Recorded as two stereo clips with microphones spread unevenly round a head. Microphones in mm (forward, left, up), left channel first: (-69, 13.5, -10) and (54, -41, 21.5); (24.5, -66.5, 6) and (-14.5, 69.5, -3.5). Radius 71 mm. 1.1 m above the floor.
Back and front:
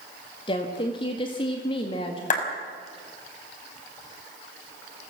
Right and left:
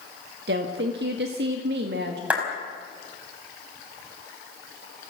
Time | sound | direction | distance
0.5 | a woman speaking | 105° left | 1.7 m
2.3 | a clap | 170° right | 5 m